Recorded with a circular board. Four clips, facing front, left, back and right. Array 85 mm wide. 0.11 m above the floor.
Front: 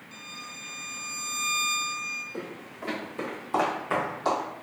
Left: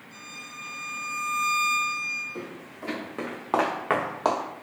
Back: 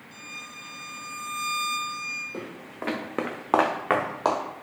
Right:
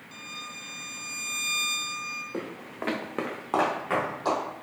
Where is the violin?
70° right, 0.5 m.